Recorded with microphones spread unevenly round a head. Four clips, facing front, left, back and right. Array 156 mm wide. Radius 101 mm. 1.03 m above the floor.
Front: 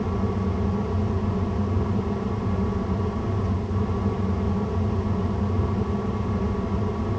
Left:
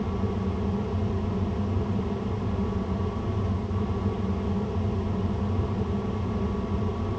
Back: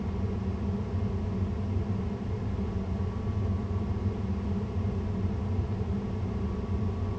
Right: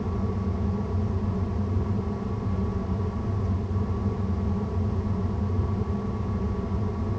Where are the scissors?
I don't hear scissors.